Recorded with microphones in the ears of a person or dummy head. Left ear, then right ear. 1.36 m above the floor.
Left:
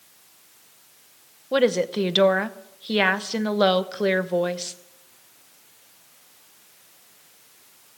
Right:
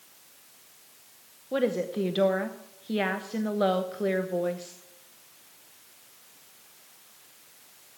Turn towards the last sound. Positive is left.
turn(degrees=30)  # may be behind; listen again after turning